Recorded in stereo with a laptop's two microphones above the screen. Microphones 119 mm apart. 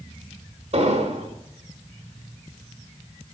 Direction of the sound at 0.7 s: 65° right (ahead or behind).